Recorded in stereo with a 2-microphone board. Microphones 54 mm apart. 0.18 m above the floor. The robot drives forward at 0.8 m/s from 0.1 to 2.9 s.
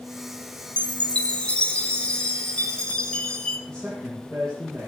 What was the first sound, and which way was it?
A chime, 20° left (ahead or behind).